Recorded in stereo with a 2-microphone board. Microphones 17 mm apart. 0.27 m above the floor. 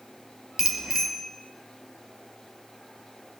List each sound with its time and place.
0.6 s a bicycle bell: 40° right (ahead or behind), 4 m